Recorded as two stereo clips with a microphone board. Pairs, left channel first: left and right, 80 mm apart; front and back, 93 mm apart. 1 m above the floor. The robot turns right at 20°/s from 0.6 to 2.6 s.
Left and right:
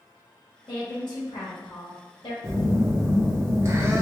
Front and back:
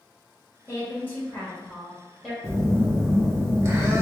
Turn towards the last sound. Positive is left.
turn(degrees=-135)